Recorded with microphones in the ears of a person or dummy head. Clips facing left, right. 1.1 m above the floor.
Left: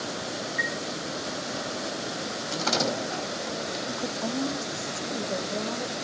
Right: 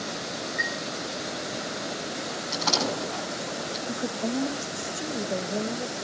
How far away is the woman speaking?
About 1.0 m.